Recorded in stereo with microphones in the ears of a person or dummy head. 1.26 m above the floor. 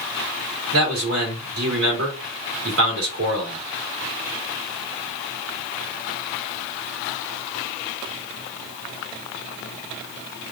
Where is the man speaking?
65° right (ahead or behind), 1.5 m.